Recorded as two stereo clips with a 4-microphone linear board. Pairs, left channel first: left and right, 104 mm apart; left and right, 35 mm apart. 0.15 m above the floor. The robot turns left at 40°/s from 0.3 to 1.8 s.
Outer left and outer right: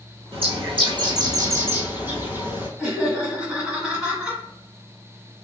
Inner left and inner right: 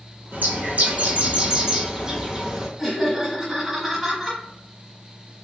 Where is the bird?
105° right, 0.9 m; by 2.7 s 160° right, 0.9 m.